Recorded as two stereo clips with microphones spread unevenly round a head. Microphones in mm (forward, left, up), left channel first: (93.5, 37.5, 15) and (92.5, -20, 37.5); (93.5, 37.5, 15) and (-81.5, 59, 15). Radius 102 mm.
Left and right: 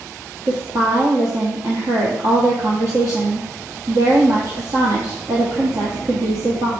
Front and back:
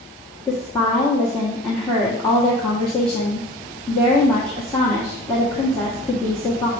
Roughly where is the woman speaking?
Right.